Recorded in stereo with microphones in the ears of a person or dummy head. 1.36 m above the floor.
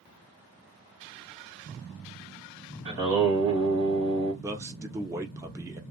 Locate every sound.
2.9 s singing: 45° right (ahead or behind), 1.9 m
4.4 s a man speaking: 15° right (ahead or behind), 0.8 m